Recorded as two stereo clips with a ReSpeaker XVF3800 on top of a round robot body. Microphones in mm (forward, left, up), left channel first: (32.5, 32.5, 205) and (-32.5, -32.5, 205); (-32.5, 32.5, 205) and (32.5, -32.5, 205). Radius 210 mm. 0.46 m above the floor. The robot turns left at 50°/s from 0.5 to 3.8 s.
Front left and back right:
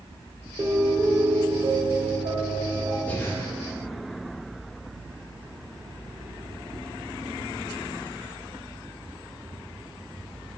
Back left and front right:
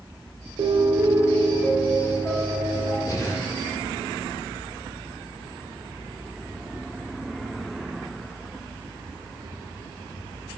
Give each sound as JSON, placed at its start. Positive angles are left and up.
{"t": 0.6, "sound": "a piano", "azimuth_deg": -70, "distance_m": 0.7}
{"t": 3.1, "sound": "breathing", "azimuth_deg": 110, "distance_m": 1.8}